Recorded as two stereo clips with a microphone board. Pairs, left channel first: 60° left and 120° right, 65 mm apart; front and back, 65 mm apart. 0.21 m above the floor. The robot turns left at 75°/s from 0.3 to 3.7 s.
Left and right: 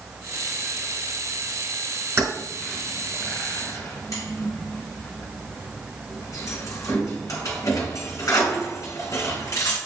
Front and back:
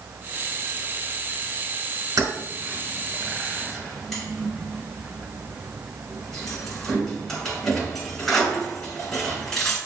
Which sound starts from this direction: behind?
Keys jangling, at 2.2 s.